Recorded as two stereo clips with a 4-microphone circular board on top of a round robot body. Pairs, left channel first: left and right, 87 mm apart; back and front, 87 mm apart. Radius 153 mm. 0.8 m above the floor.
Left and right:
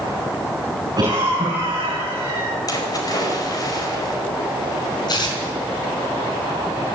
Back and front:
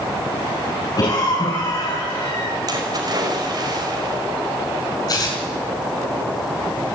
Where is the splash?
45° left, 5 m.